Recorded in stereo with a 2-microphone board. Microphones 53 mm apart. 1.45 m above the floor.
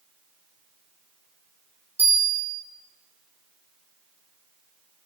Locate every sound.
2.0 s a bell: 35° right (ahead or behind), 1.5 m